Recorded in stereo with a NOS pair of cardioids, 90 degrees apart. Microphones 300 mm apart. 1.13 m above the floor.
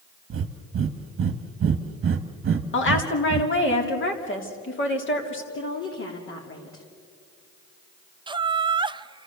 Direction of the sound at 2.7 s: 40° left.